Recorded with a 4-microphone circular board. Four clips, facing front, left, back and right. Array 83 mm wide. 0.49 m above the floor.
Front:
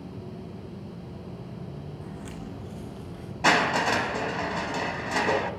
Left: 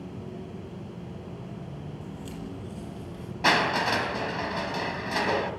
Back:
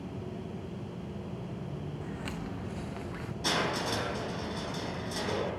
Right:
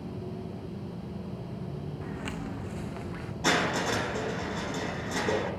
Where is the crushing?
30° left, 4 m.